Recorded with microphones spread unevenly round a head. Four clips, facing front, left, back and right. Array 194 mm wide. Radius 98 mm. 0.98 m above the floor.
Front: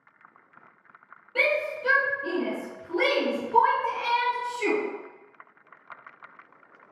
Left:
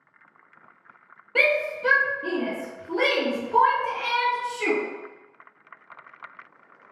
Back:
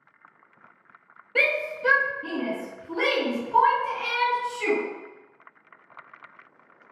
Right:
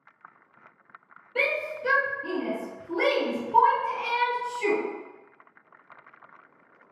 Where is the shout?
125° left, 0.7 m; by 4.8 s 95° left, 2 m.